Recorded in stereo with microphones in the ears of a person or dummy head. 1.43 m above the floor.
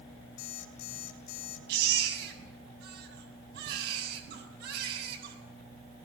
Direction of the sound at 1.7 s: 70° right (ahead or behind).